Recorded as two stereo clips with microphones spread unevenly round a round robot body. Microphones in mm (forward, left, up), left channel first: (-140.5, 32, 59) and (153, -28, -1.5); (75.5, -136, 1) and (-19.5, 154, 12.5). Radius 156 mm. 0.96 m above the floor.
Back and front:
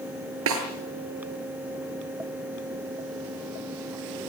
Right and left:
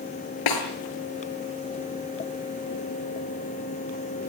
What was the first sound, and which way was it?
A snare drum, 60° right.